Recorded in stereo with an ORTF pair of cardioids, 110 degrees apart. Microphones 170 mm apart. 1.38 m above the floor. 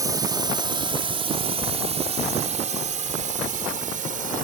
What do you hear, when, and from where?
0.0 s a drone: 20° right; by 4.4 s 50° right